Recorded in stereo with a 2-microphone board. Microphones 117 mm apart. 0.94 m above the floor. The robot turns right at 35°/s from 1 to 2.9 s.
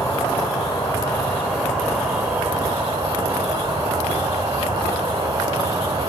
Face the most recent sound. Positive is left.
turn(degrees=-140)